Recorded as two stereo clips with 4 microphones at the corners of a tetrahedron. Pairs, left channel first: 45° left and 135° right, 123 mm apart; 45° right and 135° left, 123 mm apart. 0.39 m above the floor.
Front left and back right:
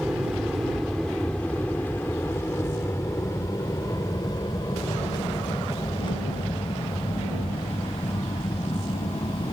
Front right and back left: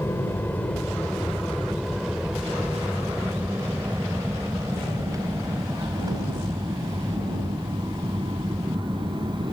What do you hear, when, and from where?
0.0 s an aircraft: 55° right; by 9.5 s 90° left